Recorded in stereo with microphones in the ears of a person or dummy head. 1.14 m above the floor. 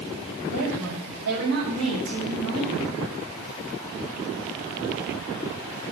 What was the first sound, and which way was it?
A woman speaking, 85° right.